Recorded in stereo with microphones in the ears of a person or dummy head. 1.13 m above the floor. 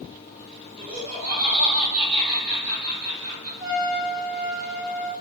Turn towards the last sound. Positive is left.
turn(degrees=0)  # may be behind; listen again after turning